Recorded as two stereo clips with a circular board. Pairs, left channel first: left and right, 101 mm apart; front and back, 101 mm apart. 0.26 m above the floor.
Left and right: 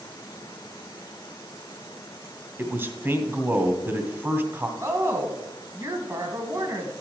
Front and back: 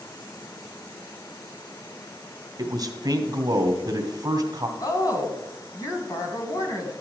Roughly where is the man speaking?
Behind right.